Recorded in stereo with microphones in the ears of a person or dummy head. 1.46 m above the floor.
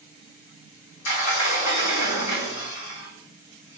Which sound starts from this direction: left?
A sliding door, at 1.1 s.